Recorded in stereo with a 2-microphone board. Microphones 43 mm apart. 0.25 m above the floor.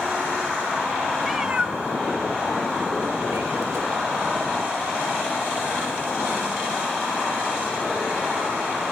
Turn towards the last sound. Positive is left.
turn(degrees=-80)